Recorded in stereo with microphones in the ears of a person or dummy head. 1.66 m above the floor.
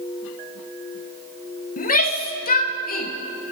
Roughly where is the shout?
Left.